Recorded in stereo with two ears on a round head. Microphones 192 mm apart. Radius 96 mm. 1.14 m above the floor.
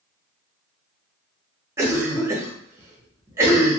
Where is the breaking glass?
I don't hear breaking glass.